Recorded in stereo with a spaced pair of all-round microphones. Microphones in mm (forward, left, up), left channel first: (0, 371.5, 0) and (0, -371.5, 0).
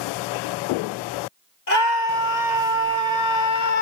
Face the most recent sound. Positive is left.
turn(degrees=65)  # may be behind; listen again after turning